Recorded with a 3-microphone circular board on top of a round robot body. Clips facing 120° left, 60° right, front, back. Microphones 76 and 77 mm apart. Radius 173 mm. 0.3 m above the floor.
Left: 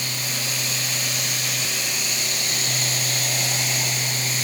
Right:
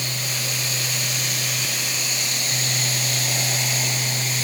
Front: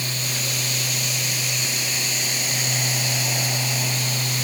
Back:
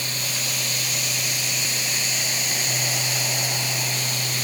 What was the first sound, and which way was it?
Only background noise.